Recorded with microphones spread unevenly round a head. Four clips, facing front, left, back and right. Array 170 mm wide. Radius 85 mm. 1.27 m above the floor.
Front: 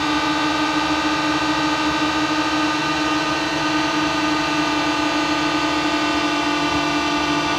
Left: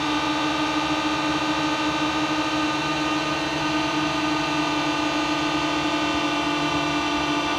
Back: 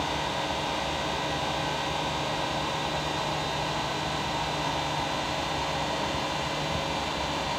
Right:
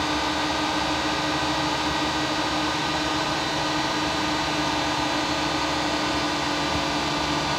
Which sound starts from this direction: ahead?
A drone, at 0.0 s.